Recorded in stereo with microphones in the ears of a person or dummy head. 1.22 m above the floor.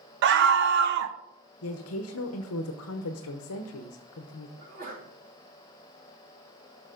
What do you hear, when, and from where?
0.2 s a scream: 55° right (ahead or behind), 0.8 m
1.6 s a woman speaking: 70° left (ahead or behind), 0.8 m
4.6 s a sneeze: 45° right (ahead or behind), 2 m